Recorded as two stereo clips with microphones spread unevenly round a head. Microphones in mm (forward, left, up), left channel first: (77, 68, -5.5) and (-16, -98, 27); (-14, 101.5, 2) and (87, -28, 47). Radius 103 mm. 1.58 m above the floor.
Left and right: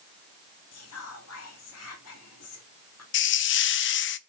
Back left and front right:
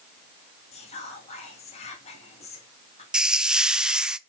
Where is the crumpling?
No crumpling in this recording.